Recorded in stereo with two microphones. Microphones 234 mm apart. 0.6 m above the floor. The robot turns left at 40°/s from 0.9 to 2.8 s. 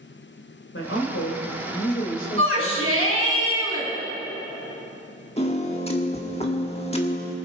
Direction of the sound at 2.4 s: 60° right (ahead or behind).